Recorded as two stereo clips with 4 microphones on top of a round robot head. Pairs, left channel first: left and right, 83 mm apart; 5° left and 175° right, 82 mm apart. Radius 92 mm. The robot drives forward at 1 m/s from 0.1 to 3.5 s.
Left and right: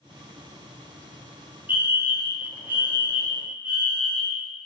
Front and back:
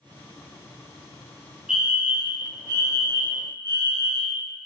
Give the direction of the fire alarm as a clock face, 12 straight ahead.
3 o'clock.